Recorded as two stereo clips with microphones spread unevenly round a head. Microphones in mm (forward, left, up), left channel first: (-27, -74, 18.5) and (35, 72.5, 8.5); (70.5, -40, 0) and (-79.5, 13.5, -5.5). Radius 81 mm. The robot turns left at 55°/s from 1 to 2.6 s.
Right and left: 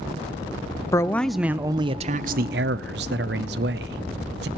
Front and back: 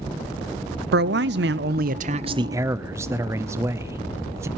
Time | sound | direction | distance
0.9 | a man speaking | 175° left | 0.6 m